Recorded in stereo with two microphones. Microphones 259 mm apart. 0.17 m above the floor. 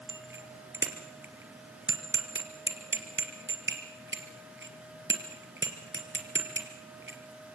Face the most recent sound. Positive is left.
turn(degrees=-45)  # may be behind; listen again after turning